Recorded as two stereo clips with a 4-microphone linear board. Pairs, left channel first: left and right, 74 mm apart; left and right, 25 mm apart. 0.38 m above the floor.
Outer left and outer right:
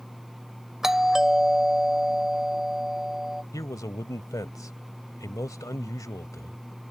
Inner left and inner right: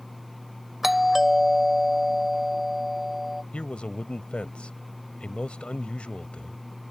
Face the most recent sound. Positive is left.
turn(degrees=50)  # may be behind; listen again after turning